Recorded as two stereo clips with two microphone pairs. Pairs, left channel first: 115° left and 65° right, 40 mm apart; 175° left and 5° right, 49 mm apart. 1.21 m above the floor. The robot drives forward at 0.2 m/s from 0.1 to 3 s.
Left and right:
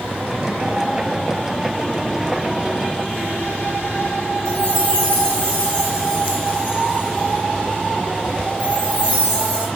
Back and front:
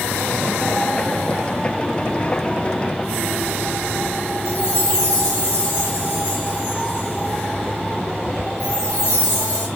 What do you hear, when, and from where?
4.5 s a chime: 175° left, 1.4 m